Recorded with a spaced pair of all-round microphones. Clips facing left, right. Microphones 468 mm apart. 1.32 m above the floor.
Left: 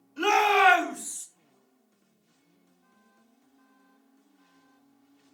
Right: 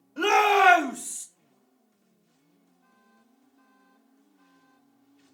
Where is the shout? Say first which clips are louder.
Right 2 dB; 80° right, 1.0 m; by 1.3 s 45° right (ahead or behind), 0.5 m.